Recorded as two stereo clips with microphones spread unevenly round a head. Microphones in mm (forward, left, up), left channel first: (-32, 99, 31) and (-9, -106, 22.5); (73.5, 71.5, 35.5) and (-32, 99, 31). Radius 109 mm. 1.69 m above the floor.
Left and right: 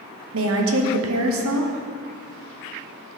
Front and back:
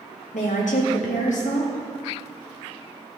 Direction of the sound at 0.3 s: 55° right.